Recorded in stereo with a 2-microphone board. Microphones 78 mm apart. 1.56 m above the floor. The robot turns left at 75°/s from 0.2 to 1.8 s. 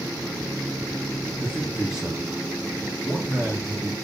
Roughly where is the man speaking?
Ahead left.